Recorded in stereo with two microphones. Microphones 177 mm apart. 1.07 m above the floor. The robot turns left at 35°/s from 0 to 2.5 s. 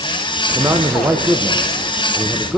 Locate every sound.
0.6 s a man speaking: 15° right (ahead or behind), 0.7 m; by 2.6 s centre (ahead or behind), 0.7 m